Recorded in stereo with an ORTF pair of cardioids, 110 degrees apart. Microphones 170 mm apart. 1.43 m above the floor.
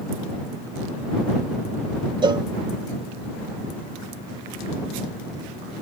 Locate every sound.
2.2 s a cowbell: 25° right